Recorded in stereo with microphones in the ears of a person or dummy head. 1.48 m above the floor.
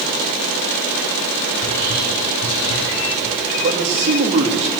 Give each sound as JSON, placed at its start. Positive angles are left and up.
{"t": 1.6, "sound": "whispering", "side_deg": -35, "distance_m": 3.5}
{"t": 3.6, "sound": "a man speaking", "side_deg": -35, "distance_m": 3.0}